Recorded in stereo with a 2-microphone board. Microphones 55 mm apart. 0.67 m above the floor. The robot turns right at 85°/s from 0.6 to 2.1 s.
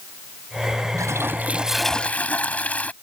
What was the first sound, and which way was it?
A toilet flushing, 70° right.